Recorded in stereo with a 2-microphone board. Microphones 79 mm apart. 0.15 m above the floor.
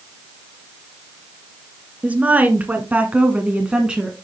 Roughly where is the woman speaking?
Centre.